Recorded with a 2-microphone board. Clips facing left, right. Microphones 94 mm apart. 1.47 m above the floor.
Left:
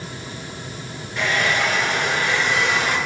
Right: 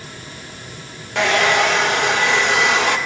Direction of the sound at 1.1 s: 75° right (ahead or behind).